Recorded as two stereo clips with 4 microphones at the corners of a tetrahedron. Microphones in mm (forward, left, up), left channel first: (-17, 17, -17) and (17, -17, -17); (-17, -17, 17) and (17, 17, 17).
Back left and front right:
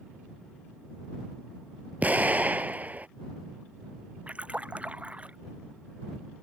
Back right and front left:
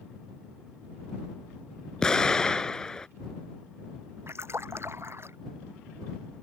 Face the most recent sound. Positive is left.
turn(degrees=15)